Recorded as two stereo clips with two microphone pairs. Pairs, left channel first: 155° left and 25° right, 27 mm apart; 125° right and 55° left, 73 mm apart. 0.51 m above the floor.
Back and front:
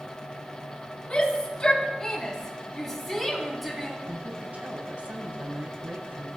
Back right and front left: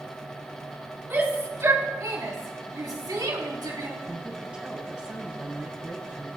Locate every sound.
1.1 s a shout: 105° left, 5.5 m; by 4.0 s 60° left, 5 m
4.1 s a woman speaking: 25° right, 3 m